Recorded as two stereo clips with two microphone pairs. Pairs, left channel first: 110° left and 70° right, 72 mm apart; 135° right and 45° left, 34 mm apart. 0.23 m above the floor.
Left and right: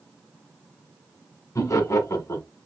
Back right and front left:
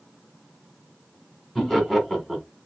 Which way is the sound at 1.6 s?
140° left.